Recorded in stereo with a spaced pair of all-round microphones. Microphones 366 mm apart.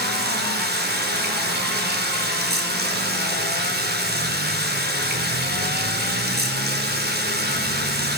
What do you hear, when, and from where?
0.0 s running water: 25° right (ahead or behind), 4 m